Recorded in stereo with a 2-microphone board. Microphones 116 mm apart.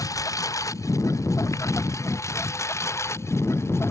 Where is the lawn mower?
30° left (ahead or behind); by 3.9 s 20° left (ahead or behind).